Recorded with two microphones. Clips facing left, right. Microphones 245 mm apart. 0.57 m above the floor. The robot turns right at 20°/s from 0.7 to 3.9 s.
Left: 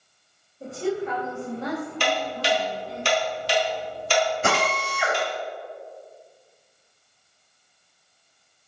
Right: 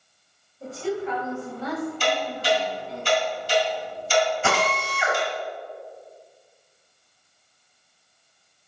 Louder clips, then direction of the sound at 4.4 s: Even; 40° left (ahead or behind).